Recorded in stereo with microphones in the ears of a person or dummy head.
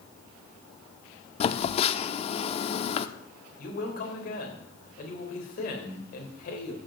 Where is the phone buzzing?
40° left (ahead or behind), 1.0 m.